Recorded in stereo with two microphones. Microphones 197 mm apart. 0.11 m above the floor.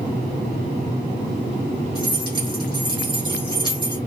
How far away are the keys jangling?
About 4 m.